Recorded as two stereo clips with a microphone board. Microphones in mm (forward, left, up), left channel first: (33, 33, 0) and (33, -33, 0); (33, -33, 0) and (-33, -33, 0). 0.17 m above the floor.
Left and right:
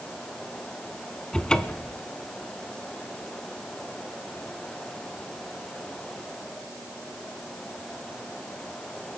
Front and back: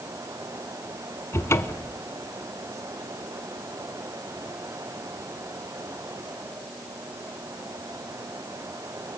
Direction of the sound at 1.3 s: 15° left.